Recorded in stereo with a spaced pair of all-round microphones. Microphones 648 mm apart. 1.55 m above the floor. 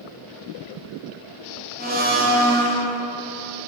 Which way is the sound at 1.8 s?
15° right (ahead or behind).